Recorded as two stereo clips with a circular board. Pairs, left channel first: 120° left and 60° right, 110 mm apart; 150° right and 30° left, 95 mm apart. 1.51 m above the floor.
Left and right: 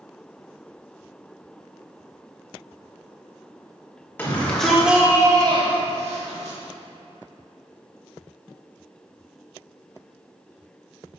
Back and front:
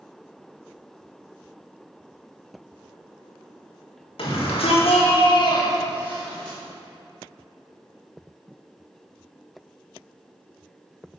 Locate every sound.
4.2 s a shout: 165° right, 2.5 m; by 6.6 s 65° right, 2.5 m